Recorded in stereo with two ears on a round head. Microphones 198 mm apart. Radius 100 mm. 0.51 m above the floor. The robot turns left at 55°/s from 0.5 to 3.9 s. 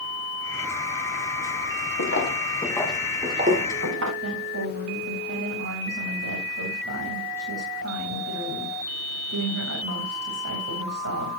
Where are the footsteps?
60° left (ahead or behind), 3.5 m; by 4.1 s 60° right (ahead or behind), 5.5 m.